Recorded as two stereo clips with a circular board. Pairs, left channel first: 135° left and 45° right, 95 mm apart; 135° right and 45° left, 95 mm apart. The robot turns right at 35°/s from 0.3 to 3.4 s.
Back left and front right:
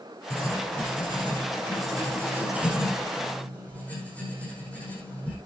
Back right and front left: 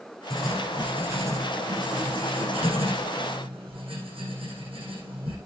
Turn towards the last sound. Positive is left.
turn(degrees=60)